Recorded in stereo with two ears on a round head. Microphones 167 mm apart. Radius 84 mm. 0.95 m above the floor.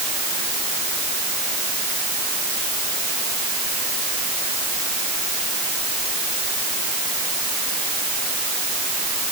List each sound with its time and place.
Only background noise.